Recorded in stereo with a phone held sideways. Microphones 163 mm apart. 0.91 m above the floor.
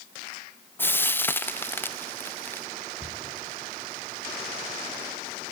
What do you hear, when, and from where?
0.8 s frying: 10° left (ahead or behind), 0.9 m
3.0 s a cupboard door: 45° left (ahead or behind), 7 m